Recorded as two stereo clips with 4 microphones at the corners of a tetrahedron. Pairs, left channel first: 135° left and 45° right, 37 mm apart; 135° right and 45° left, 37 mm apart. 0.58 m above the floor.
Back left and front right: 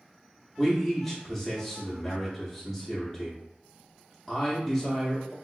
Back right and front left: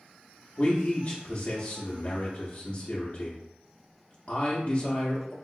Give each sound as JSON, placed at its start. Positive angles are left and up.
{"t": 0.6, "sound": "a man speaking", "azimuth_deg": -155, "distance_m": 0.7}